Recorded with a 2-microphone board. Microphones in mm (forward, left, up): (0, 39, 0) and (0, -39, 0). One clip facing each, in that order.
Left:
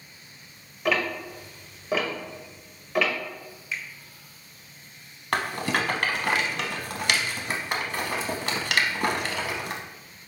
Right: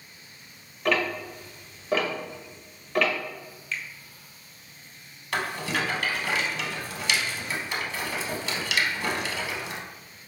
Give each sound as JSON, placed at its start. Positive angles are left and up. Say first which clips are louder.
{"t": 0.8, "sound": "ticking", "louder": "even", "side_deg": 5, "distance_m": 0.6}
{"t": 3.7, "sound": "a finger snap", "louder": "even", "side_deg": 15, "distance_m": 0.5}
{"t": 5.3, "sound": "a rattle", "louder": "left 2 dB", "side_deg": 60, "distance_m": 0.6}